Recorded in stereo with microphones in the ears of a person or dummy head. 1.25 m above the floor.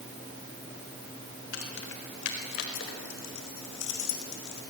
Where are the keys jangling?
75° left (ahead or behind), 3.5 m; by 4.6 s 70° left (ahead or behind), 5.5 m.